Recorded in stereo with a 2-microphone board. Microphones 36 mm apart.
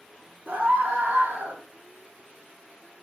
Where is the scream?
55° right (ahead or behind), 3 m.